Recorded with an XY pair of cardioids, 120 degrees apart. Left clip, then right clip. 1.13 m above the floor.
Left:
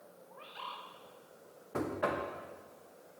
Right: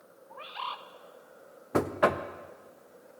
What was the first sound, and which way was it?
A bird, 55° right.